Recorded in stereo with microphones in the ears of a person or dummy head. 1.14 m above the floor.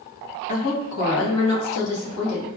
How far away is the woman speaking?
About 0.9 m.